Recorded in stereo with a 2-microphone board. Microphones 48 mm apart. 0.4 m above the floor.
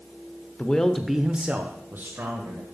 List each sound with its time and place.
0.6 s a man speaking: 25° left (ahead or behind), 0.8 m; by 2.6 s 60° right (ahead or behind), 1.4 m